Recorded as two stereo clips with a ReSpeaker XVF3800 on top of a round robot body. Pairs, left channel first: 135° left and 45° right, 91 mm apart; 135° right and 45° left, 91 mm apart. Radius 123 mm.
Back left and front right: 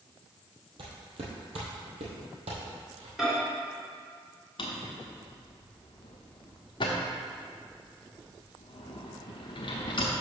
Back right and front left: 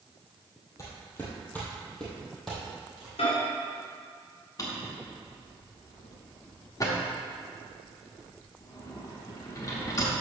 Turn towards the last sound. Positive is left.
turn(degrees=170)